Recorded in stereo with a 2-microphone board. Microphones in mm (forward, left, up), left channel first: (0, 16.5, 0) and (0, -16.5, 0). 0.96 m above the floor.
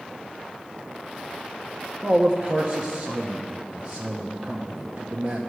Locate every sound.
2.0 s a man speaking: 45° right (ahead or behind), 0.9 m